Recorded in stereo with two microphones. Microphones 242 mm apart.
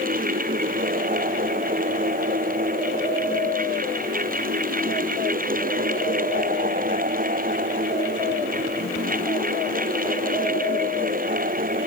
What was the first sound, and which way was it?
Only background noise.